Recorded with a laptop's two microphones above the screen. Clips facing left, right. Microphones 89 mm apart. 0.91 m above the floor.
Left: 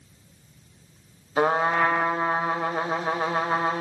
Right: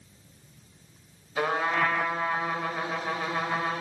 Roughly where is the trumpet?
Left.